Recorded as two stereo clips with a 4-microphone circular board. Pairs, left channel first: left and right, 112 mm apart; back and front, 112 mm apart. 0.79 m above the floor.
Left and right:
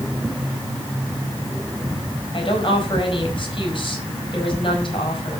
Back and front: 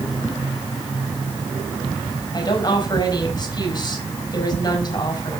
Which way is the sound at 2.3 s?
130° left.